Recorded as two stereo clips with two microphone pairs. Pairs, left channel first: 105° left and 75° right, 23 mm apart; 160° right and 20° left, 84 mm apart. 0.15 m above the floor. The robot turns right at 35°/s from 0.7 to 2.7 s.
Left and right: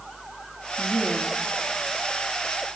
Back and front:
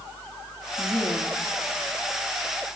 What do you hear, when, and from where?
0.8 s a woman speaking: 130° left, 2.5 m; by 1.4 s 155° left, 2.5 m